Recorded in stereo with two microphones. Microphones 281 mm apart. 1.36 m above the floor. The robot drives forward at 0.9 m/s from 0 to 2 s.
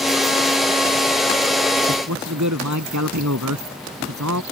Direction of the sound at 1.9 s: 85° right.